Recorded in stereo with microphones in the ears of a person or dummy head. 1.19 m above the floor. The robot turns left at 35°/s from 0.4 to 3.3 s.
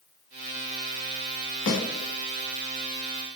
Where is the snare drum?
75° left (ahead or behind), 1.3 m.